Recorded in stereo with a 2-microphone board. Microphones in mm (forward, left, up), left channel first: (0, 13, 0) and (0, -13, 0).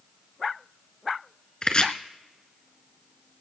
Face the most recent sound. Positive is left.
turn(degrees=35)  # may be behind; listen again after turning